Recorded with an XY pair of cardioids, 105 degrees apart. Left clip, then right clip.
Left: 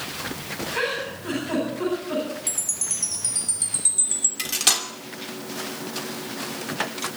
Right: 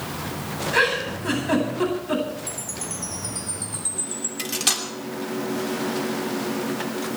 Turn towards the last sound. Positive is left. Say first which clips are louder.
# left 1 dB
turn(degrees=20)